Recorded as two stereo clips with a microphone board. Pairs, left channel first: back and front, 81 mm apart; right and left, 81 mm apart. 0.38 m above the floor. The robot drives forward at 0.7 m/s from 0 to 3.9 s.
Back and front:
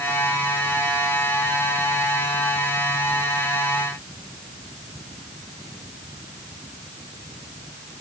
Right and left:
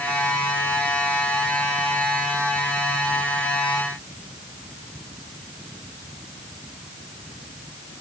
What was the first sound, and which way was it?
Only background noise.